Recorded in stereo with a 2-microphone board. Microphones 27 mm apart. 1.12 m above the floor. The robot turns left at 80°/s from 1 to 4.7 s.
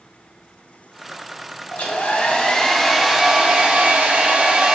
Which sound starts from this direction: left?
A hair dryer, at 1.7 s.